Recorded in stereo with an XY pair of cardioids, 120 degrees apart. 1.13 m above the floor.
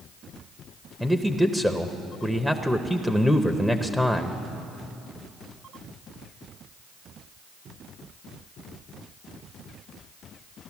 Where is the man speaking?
Straight ahead, 0.7 m.